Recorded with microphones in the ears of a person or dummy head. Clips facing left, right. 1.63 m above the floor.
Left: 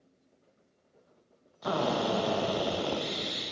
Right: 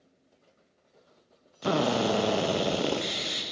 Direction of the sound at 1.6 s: 35° right (ahead or behind).